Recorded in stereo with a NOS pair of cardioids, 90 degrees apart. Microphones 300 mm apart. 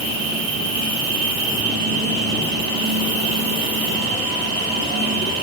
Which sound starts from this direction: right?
An insect, at 0.0 s.